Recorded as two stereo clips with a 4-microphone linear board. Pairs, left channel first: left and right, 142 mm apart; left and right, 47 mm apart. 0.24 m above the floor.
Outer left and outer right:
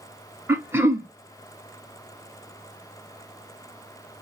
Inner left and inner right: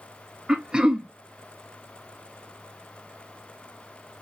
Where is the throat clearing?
15° right (ahead or behind), 0.5 m.